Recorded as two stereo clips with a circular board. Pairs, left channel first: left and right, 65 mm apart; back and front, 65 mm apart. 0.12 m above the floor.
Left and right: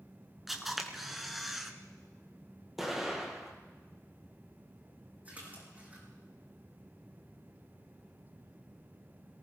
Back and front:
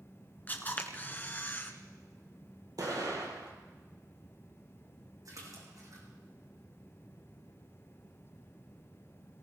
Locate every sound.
0.5 s a camera shutter: 175° right, 1.5 m
2.8 s an explosion: 5° right, 3 m
5.2 s a splash: 25° right, 5 m